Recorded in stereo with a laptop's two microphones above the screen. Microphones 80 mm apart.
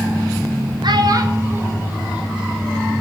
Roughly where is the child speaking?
Right.